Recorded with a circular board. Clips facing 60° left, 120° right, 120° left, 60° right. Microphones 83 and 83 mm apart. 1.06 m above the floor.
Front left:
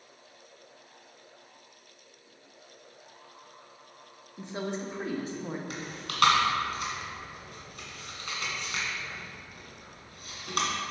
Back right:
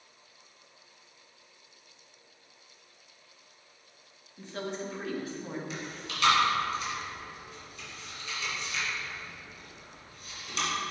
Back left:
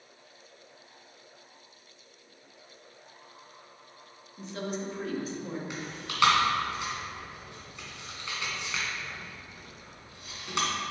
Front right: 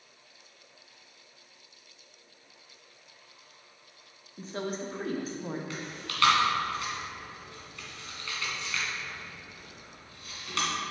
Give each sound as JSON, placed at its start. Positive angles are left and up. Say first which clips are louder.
{"t": 4.4, "sound": "a woman speaking", "louder": "front left 2 dB, even", "azimuth_deg": -10, "distance_m": 0.9}
{"t": 5.7, "sound": "chewing", "louder": "front left 1 dB, back left 1 dB", "azimuth_deg": 50, "distance_m": 1.8}